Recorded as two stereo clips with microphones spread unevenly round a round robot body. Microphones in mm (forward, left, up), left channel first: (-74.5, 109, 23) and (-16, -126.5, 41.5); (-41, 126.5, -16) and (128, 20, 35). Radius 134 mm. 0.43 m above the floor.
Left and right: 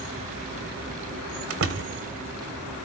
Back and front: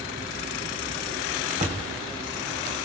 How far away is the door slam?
About 1.8 m.